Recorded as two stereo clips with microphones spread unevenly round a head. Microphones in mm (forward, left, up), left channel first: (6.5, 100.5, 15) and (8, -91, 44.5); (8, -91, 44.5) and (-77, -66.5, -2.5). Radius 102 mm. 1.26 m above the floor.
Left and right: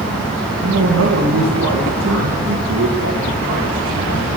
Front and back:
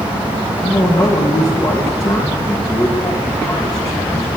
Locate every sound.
0.6 s a man speaking: 70° right, 2 m